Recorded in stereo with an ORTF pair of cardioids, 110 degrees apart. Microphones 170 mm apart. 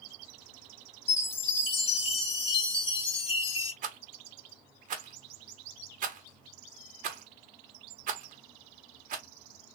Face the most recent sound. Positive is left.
turn(degrees=-55)